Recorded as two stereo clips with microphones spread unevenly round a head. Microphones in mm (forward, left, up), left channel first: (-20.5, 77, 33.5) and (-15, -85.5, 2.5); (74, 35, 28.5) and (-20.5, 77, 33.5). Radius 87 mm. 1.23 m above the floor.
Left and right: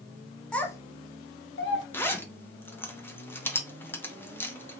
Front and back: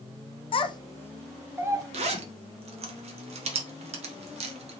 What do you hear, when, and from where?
0.5 s a child speaking: 10° left, 0.7 m; by 1.8 s 100° left, 0.7 m
1.9 s a zipper: 175° left, 0.8 m